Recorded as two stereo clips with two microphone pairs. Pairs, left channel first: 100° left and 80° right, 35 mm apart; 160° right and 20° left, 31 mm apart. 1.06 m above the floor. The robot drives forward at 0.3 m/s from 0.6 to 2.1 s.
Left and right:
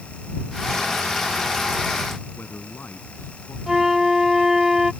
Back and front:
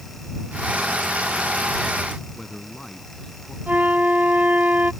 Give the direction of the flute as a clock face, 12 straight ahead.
12 o'clock.